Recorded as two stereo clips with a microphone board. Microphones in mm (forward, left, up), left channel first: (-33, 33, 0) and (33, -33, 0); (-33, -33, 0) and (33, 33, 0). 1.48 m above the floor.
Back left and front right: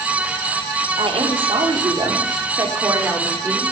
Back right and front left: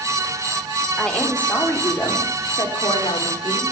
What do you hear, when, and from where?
1.0 s a woman speaking: 55° right, 3.5 m; by 3.6 s 115° right, 4 m